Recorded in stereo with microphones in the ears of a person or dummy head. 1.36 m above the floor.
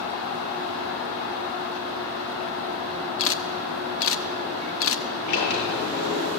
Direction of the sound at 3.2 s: 70° left (ahead or behind).